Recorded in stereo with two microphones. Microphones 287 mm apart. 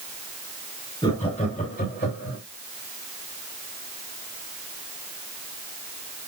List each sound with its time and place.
1.0 s laughter: 20° left (ahead or behind), 4 m; by 2.4 s 45° left (ahead or behind), 3 m